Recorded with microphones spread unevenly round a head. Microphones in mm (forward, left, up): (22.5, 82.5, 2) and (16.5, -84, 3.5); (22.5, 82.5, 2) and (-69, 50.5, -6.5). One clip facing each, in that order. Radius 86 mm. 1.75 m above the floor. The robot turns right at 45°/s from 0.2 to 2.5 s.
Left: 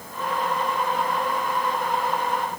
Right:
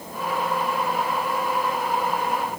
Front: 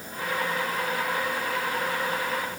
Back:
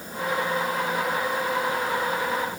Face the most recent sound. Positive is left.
No sound to turn to.